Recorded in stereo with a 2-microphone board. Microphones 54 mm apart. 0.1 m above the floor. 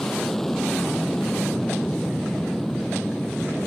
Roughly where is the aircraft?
Centre.